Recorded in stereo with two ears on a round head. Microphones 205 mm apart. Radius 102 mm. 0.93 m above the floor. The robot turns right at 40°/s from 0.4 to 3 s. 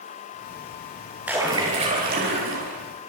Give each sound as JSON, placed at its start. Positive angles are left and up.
{"t": 1.3, "sound": "a splash", "azimuth_deg": -175, "distance_m": 8.0}